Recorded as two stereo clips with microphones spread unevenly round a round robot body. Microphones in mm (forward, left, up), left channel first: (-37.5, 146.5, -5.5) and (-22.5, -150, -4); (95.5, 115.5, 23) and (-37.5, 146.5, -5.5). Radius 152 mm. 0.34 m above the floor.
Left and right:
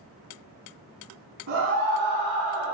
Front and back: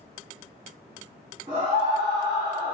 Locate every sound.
1.5 s a scream: 135° right, 2.5 m